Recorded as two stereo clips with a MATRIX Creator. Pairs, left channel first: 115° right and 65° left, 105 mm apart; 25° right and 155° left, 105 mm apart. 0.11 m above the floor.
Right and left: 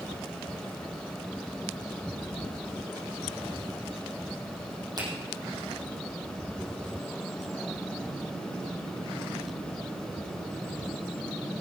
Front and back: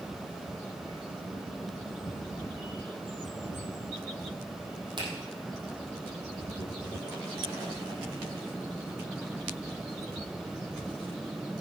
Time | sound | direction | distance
5.0 | a finger snap | 115° left | 4.5 m